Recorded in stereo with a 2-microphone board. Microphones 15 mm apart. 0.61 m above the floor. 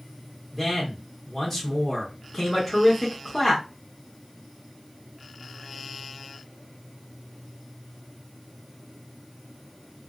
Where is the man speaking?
5° left (ahead or behind), 1.0 m.